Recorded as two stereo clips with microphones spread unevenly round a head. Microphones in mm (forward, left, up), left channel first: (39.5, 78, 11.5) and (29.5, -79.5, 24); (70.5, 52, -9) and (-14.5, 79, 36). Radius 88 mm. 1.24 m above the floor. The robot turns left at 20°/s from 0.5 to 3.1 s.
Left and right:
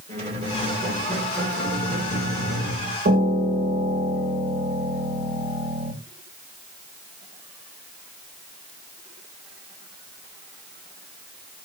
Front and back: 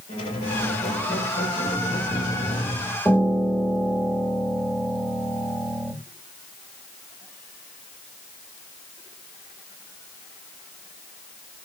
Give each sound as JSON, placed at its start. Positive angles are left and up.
{"t": 0.1, "sound": "a squeak", "azimuth_deg": -40, "distance_m": 3.5}
{"t": 3.0, "sound": "a piano", "azimuth_deg": -125, "distance_m": 1.5}